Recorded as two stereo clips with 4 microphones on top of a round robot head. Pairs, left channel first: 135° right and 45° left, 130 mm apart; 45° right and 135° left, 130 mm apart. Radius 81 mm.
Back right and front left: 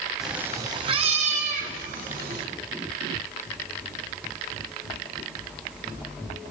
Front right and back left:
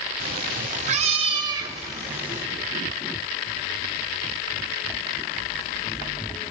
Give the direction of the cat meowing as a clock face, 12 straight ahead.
8 o'clock.